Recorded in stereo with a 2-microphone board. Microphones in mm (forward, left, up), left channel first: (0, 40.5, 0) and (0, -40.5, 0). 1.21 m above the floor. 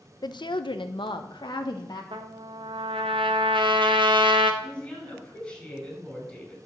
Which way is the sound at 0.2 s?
55° left (ahead or behind).